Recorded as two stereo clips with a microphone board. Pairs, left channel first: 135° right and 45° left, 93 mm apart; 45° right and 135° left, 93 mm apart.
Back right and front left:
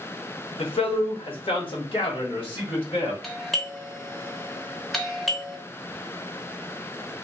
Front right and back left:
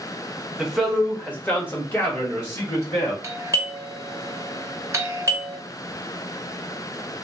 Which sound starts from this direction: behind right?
A man speaking, at 0.6 s.